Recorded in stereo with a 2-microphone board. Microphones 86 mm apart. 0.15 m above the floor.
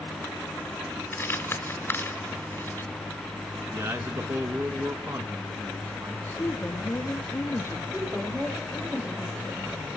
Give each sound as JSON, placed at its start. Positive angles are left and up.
{"t": 1.1, "sound": "crumpling", "side_deg": 30, "distance_m": 1.8}
{"t": 3.7, "sound": "a man speaking", "side_deg": -40, "distance_m": 1.4}
{"t": 6.4, "sound": "a woman speaking", "side_deg": 35, "distance_m": 1.4}
{"t": 7.9, "sound": "a woman speaking", "side_deg": -15, "distance_m": 8.5}